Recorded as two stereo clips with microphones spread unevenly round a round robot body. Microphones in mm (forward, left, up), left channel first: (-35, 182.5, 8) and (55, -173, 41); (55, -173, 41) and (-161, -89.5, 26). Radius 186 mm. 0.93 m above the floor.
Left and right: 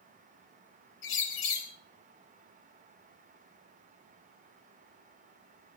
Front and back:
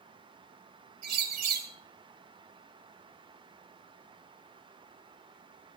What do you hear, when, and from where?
1.0 s a bird: 140° left, 3.5 m